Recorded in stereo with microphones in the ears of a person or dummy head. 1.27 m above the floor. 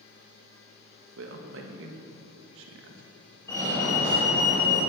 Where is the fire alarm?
20° left (ahead or behind), 5.5 m.